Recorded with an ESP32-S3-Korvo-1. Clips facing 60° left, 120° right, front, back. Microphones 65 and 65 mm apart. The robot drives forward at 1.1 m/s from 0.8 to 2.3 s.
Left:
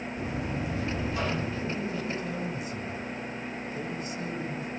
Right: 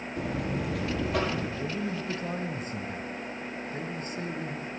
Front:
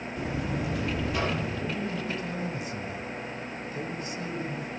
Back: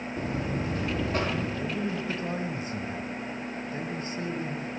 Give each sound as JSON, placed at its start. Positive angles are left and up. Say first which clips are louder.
{"t": 0.2, "sound": "a buzzer", "louder": "right 3 dB, even", "azimuth_deg": -130, "distance_m": 6.5}
{"t": 1.6, "sound": "a man speaking", "louder": "even, back 1 dB", "azimuth_deg": -105, "distance_m": 1.5}